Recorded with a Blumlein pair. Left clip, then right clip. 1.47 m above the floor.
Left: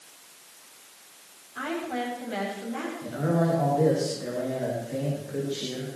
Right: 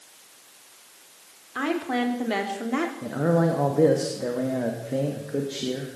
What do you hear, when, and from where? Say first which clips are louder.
1.6 s a woman speaking: right 5 dB; 60° right, 4 m; by 2.9 s 35° right, 3.5 m
3.0 s a man speaking: right 2 dB; 20° right, 2.5 m